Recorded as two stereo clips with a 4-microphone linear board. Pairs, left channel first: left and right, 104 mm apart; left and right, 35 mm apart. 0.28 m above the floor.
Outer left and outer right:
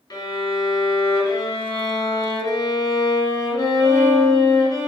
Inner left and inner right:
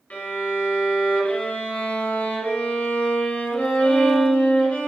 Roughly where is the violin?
Left.